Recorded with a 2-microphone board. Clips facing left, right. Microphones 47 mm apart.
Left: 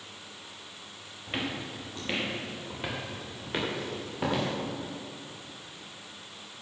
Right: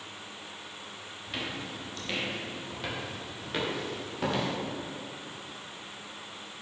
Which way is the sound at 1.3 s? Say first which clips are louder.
Left 3 dB; 30° left (ahead or behind).